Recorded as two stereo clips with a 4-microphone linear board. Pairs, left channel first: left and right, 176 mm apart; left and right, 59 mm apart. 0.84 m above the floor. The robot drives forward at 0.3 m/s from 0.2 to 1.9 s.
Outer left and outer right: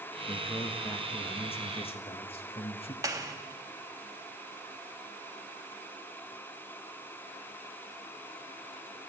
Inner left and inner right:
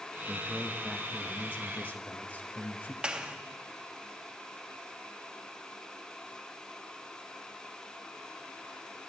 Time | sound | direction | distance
0.3 | a man speaking | 30° left (ahead or behind) | 1.2 m
3.0 | a clap | 20° right (ahead or behind) | 1.3 m